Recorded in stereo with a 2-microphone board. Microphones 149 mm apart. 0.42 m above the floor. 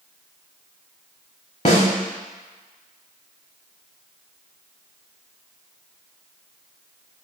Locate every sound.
1.6 s a snare drum: 55° left (ahead or behind), 1.2 m